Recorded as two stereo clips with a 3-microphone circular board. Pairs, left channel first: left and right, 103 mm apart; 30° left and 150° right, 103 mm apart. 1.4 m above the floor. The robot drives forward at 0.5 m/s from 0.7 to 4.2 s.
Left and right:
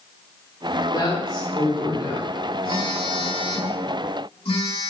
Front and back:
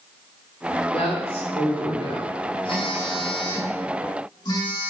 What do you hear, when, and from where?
0.9 s a woman speaking: 50° left, 4 m; by 2.3 s 60° left, 3.5 m
2.6 s a phone buzzing: 60° left, 3.5 m; by 4.9 s 75° left, 3 m